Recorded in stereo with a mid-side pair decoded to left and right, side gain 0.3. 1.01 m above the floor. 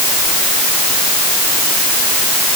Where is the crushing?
No crushing in this recording.